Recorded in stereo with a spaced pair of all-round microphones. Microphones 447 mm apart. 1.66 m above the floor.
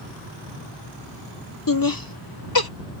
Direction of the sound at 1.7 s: 45° left (ahead or behind).